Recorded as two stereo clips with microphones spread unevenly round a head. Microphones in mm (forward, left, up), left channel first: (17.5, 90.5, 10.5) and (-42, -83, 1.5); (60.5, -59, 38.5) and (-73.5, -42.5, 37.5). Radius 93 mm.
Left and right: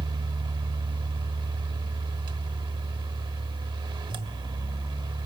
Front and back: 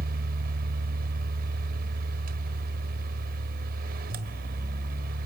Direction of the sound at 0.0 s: 175° right.